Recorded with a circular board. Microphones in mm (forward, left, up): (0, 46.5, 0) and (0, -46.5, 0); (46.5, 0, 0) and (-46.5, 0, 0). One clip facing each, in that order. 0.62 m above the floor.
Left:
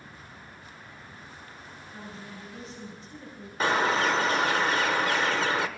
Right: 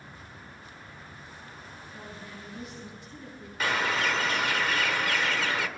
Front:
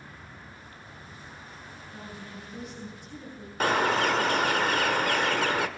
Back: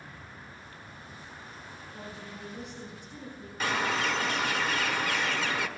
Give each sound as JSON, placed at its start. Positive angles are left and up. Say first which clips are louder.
{"t": 1.9, "sound": "a woman speaking", "louder": "left 2 dB, front 1 dB", "azimuth_deg": 35, "distance_m": 7.5}
{"t": 3.6, "sound": "a bird", "louder": "left 4 dB, front 5 dB", "azimuth_deg": 35, "distance_m": 0.9}